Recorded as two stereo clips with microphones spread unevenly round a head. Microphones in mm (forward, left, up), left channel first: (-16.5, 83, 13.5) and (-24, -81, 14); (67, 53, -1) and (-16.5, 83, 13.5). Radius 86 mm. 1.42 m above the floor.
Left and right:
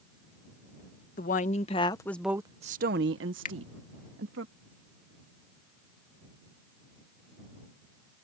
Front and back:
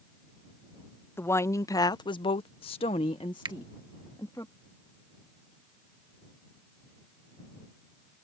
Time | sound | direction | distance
1.2 | a woman speaking | 40° left | ?
3.5 | a finger snap | 130° left | ?